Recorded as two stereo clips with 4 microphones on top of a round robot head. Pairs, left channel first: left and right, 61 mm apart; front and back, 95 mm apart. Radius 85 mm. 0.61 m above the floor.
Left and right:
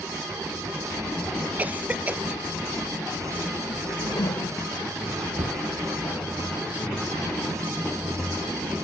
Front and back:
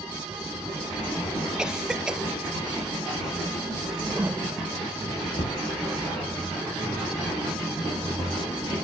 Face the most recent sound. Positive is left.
turn(degrees=-50)